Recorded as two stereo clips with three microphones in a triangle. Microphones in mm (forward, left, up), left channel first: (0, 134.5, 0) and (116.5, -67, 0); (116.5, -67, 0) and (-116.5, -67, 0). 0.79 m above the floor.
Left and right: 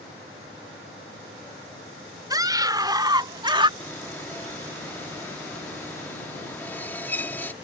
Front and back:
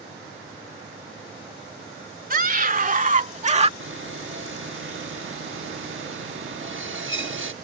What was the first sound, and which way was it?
A scream, 135° right.